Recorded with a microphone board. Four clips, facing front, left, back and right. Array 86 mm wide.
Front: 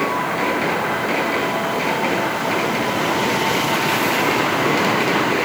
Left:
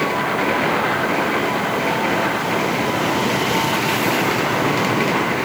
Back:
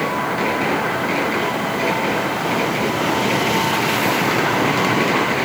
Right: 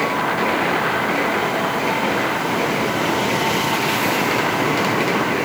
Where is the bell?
I don't hear a bell.